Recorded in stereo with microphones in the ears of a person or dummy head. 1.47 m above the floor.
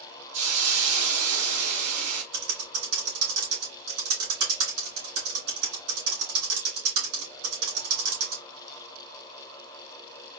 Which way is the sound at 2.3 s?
70° right (ahead or behind).